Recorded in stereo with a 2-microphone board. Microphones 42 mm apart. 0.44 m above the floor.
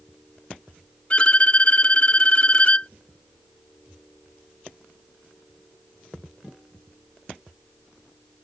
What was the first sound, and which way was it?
A violin, 30° left (ahead or behind).